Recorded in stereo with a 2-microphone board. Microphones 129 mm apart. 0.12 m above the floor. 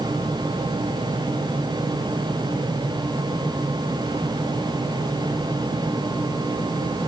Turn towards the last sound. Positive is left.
No sound to turn to.